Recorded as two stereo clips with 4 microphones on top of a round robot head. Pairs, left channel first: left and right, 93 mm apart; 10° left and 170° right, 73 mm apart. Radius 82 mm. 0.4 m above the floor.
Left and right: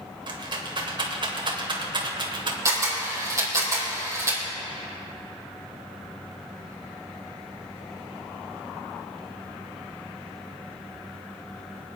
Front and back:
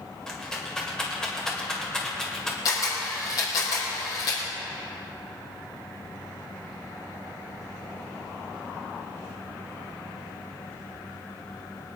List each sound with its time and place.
0.3 s a rattle: 70° right, 2 m
2.6 s a camera shutter: 35° right, 4.5 m